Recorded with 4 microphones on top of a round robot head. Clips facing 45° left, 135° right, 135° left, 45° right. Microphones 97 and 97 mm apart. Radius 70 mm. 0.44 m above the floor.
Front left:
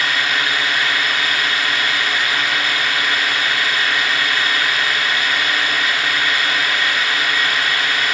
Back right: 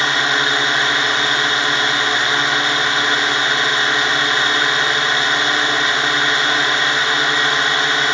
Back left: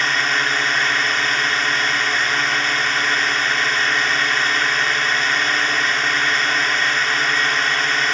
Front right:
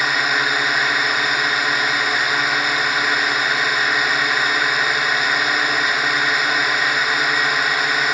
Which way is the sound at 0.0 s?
115° right.